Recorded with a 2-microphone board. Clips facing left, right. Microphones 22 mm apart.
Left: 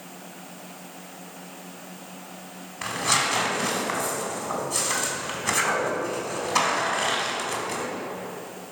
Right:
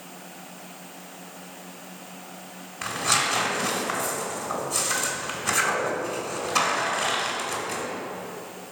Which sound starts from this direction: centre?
Tearing paper, at 2.8 s.